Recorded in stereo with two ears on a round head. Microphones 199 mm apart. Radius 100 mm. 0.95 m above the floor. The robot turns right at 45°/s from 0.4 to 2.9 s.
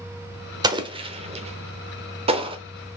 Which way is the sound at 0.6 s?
20° right (ahead or behind).